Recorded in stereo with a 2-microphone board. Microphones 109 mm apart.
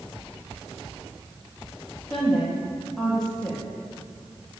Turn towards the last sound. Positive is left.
turn(degrees=5)  # may be behind; listen again after turning